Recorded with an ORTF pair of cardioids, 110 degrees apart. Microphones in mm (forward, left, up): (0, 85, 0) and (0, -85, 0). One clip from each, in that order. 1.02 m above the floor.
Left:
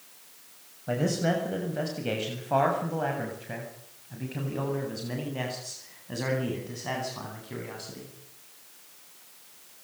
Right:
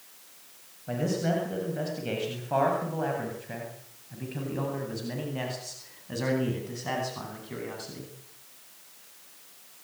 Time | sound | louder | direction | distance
0.9 | a man speaking | left 2 dB | 25° left | 7 m